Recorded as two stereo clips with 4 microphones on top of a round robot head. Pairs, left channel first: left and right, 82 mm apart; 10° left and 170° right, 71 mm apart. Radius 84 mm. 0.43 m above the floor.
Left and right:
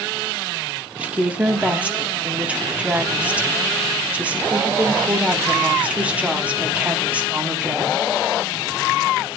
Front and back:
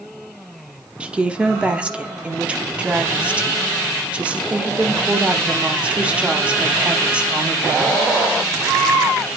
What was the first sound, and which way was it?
A woman speaking, 130° right.